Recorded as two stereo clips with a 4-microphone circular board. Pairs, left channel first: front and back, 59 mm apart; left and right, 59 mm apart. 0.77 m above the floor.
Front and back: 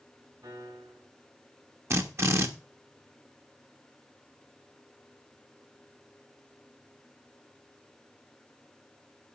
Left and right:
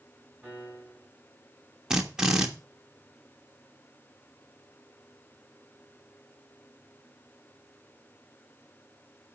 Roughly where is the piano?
Behind.